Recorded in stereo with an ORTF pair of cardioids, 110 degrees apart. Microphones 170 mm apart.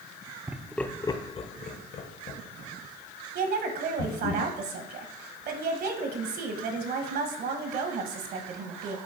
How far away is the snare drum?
No snare drum in this recording.